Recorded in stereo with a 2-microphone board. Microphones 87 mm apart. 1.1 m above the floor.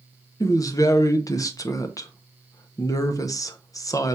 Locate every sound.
0.4 s a woman speaking: 40° left (ahead or behind), 0.6 m